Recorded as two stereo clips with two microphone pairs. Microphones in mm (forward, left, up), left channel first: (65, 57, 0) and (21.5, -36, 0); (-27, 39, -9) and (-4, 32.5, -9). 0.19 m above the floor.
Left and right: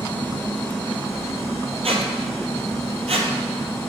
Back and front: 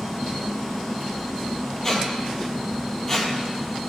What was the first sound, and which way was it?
A squeak, 130° right.